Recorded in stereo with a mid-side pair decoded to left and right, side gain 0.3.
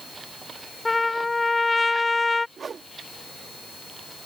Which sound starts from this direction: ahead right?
A whoosh, at 2.6 s.